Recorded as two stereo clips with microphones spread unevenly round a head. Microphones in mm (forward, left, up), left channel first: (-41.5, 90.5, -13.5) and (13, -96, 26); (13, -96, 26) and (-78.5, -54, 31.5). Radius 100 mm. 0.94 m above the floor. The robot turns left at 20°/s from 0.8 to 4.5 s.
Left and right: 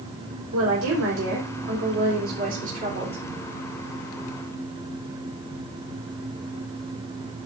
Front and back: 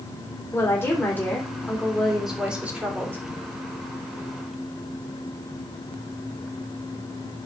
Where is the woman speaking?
90° right, 3.5 m; by 3.2 s 140° right, 3.5 m.